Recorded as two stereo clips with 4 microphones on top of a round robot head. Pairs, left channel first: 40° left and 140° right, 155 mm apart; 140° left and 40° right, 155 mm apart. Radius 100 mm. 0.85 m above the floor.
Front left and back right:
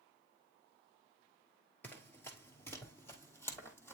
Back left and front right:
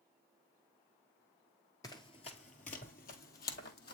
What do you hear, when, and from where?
1.8 s running footsteps: 105° left, 0.8 m; by 4.0 s 115° left, 1.7 m